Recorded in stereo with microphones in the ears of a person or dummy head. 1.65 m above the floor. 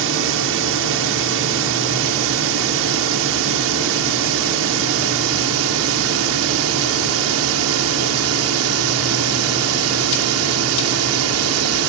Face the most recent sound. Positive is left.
turn(degrees=-75)  # may be behind; listen again after turning